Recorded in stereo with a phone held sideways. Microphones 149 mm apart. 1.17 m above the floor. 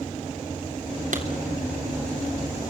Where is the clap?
65° right (ahead or behind), 3.5 m.